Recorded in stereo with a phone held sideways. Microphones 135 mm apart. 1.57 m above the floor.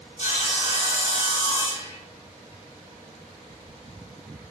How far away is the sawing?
About 2.5 m.